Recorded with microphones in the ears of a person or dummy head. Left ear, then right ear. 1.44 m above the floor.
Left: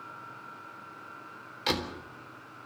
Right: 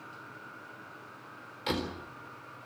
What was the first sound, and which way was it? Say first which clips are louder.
A door slam: left 3 dB; 20° left (ahead or behind).